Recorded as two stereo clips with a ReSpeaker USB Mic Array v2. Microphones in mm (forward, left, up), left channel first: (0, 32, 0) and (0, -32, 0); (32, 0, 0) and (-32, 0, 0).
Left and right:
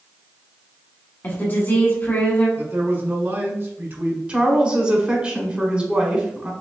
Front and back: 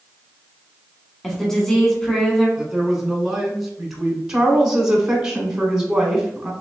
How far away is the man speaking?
About 1.2 m.